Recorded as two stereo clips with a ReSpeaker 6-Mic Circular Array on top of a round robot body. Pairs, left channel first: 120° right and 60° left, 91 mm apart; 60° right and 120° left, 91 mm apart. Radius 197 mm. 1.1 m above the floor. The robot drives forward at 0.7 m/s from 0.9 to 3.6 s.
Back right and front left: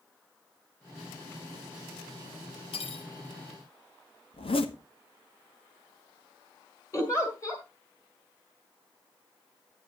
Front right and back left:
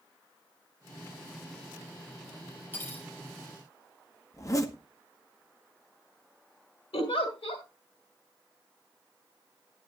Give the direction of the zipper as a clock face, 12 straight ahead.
4 o'clock.